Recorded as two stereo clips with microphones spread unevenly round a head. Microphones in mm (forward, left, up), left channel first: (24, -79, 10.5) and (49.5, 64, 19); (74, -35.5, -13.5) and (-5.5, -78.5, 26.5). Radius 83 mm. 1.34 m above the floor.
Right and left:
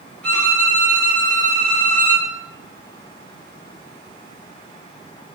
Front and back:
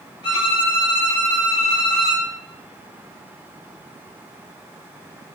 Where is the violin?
20° right, 1.5 m.